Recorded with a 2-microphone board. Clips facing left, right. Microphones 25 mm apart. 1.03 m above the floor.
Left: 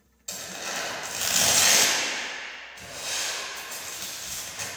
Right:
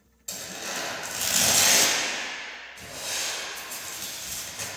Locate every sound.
0.3 s tearing paper: 10° left (ahead or behind), 0.9 m